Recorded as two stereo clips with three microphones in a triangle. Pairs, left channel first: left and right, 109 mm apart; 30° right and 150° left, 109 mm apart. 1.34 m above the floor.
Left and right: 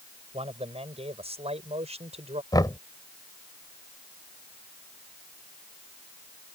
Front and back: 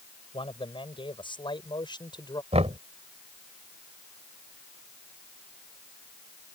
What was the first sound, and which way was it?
A man speaking, 65° right.